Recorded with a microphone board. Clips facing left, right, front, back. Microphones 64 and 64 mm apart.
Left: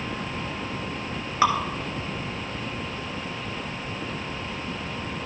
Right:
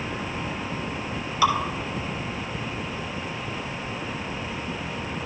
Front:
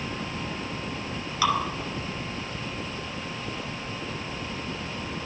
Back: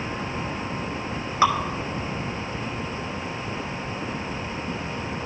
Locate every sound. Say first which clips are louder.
1.4 s dripping: even, back 5 dB; 135° left, 1.3 m